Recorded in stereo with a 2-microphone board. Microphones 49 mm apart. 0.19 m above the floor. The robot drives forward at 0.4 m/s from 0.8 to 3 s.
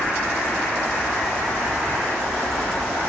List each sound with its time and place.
0.0 s an insect: centre (ahead or behind), 1.4 m